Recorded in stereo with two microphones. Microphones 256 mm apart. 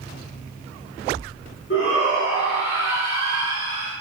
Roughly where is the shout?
Left.